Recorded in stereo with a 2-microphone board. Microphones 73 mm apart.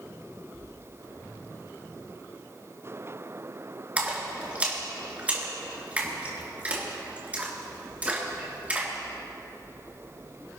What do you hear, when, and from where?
4.0 s a splash: 20° right (ahead or behind), 3 m